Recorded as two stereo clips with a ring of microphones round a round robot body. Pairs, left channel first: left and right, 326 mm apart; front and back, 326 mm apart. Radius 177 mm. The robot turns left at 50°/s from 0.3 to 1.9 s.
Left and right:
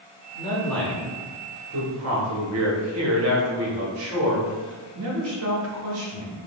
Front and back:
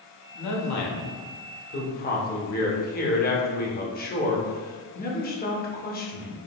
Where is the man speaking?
20° left, 0.8 m; by 6.4 s 55° right, 0.8 m.